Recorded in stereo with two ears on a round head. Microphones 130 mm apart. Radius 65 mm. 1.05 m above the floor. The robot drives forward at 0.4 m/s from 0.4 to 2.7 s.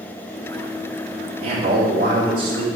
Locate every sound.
1.4 s a man speaking: 40° right (ahead or behind), 2.5 m; by 2.7 s 35° right (ahead or behind), 3 m